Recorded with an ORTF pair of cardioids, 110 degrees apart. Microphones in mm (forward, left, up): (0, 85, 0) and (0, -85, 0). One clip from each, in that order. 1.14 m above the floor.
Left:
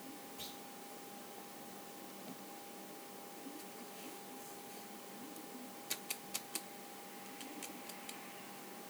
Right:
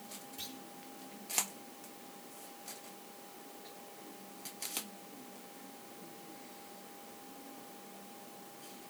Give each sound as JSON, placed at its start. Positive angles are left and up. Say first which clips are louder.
{"t": 0.4, "sound": "a clunk", "louder": "right 3 dB", "azimuth_deg": -60, "distance_m": 4.0}